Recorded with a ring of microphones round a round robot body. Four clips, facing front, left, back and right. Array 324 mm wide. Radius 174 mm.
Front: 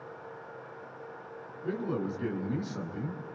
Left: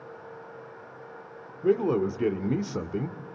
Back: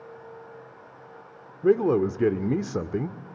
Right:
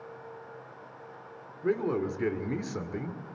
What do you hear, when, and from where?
1.6 s a man speaking: 165° left, 2 m